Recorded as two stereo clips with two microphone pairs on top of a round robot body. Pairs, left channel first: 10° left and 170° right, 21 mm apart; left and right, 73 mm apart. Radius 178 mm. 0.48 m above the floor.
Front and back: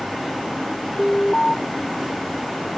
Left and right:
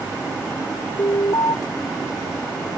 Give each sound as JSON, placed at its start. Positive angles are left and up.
{"t": 1.0, "sound": "an alarm", "azimuth_deg": 65}